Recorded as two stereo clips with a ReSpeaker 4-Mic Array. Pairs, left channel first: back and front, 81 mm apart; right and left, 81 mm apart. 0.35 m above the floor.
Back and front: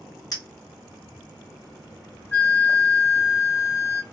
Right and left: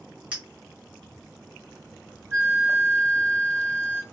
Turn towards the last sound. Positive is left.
turn(degrees=125)